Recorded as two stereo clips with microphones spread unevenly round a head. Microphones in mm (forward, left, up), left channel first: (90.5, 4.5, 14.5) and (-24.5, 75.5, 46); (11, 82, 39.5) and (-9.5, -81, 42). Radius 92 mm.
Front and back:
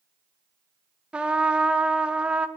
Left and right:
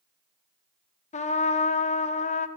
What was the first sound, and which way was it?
A trumpet, 55° left.